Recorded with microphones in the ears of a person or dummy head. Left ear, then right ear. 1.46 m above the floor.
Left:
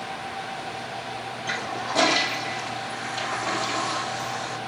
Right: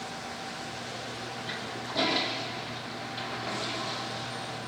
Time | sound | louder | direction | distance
1.5 | a toilet flushing | left 11 dB | 40° left (ahead or behind) | 1.0 m